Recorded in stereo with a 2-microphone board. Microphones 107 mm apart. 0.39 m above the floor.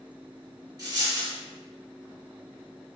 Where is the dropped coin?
35° right (ahead or behind), 2.5 m.